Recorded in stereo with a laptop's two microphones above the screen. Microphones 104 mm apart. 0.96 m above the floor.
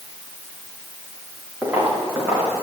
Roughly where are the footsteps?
Centre.